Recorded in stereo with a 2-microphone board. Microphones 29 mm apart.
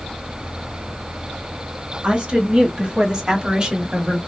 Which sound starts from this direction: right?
A woman speaking, at 2.0 s.